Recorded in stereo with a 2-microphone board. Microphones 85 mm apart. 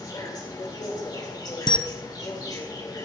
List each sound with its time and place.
0.0 s an insect: 50° left (ahead or behind), 3.5 m
1.7 s a camera shutter: 65° left (ahead or behind), 0.7 m